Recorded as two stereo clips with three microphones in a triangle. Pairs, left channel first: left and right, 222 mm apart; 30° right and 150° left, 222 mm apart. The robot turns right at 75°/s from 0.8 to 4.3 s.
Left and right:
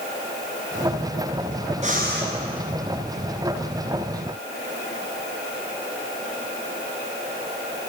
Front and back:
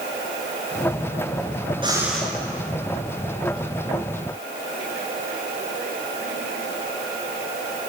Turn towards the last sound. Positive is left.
turn(degrees=40)